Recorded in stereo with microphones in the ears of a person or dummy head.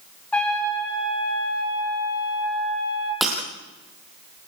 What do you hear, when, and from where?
0.3 s a trumpet: 5° left (ahead or behind), 6.5 m
3.2 s breaking glass: centre (ahead or behind), 2.5 m